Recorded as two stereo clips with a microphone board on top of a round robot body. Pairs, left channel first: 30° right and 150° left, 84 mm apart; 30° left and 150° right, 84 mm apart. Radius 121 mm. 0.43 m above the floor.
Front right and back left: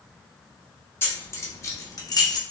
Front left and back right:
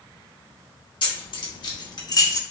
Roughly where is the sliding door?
No sliding door in this recording.